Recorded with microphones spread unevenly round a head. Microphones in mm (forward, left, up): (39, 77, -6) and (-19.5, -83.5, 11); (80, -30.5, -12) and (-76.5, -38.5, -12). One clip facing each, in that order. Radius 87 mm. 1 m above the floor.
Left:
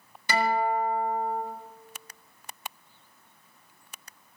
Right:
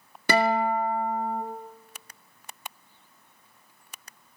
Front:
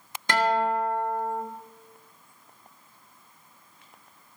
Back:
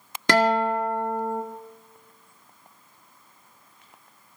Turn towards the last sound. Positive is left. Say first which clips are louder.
# right 3 dB, back 3 dB
turn(degrees=-155)